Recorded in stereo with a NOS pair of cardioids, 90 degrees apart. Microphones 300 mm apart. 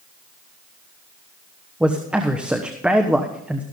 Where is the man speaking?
5° right, 1.2 m.